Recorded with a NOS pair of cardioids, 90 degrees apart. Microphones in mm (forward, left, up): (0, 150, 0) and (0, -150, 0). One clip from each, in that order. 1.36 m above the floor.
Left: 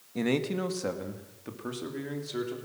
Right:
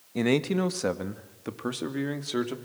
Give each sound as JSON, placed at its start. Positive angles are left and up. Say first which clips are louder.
{"t": 0.1, "sound": "a man speaking", "louder": "right 4 dB", "azimuth_deg": -25, "distance_m": 1.8}